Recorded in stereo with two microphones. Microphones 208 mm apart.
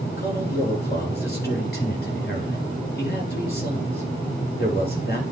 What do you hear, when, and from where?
0.2 s a man speaking: 50° left (ahead or behind), 3 m